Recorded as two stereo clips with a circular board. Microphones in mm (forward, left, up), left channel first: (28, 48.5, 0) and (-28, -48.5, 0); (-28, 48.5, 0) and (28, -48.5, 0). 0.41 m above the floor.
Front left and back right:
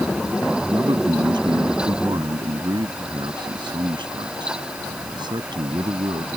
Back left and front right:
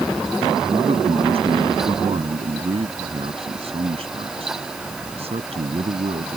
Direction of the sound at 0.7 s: 75° right.